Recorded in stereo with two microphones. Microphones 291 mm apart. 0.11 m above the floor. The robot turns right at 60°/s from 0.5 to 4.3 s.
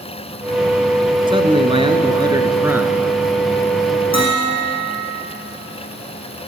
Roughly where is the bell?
Left.